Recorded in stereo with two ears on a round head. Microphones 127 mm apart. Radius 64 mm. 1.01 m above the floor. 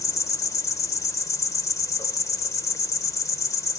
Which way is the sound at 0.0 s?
20° left (ahead or behind).